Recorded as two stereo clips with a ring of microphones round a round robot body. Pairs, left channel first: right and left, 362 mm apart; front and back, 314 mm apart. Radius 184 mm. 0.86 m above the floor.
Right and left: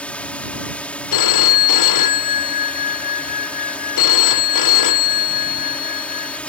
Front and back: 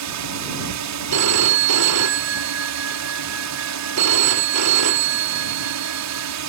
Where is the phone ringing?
130° right.